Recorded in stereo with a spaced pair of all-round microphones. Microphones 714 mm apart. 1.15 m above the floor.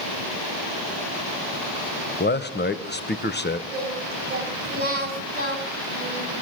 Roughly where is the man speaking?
Centre.